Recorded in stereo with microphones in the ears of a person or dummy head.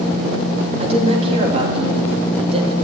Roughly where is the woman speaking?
Right.